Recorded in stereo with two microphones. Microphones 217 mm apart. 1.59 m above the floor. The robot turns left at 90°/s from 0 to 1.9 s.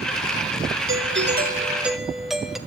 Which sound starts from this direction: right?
A doorbell, at 0.9 s.